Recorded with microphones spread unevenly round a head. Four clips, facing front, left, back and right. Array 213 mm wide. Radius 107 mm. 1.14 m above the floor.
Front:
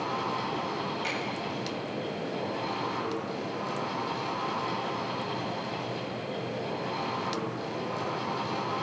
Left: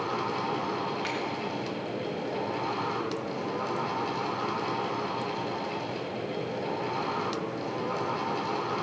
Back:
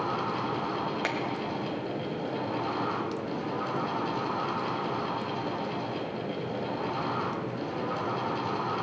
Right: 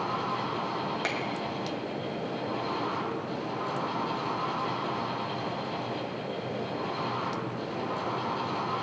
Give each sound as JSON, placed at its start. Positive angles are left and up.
{"t": 0.0, "sound": "a fan", "azimuth_deg": 115, "distance_m": 1.5}
{"t": 1.0, "sound": "a finger snap", "azimuth_deg": -130, "distance_m": 0.9}